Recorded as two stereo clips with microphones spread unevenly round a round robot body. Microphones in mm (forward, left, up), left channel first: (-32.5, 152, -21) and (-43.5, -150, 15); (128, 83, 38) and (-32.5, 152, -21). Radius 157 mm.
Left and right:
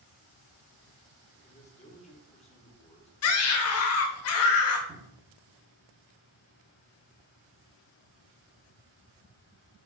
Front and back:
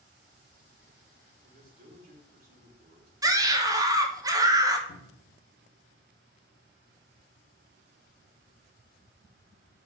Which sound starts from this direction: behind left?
A man speaking, at 1.4 s.